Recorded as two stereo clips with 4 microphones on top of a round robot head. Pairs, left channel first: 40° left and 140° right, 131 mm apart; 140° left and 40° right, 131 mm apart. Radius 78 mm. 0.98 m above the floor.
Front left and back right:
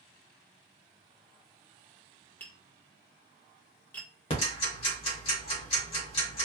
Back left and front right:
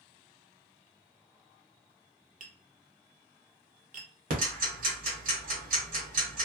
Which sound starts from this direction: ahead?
Ticking, at 4.3 s.